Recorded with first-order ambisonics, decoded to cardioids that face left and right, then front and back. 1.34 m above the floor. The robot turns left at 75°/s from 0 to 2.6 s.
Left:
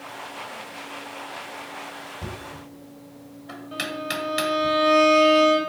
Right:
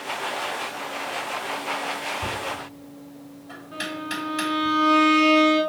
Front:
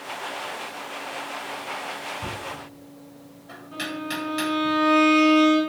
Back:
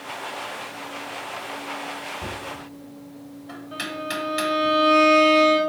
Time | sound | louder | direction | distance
2.2 | knocking | right 8 dB, even | 130° left | 1.0 m
3.7 | a violin | left 2 dB, back 1 dB | 125° left | 1.3 m